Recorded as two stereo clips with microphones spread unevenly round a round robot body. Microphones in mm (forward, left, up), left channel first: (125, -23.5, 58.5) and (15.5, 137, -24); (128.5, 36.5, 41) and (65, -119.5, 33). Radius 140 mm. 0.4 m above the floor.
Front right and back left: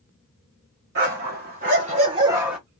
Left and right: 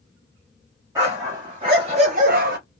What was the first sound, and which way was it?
A dog barking, 170° left.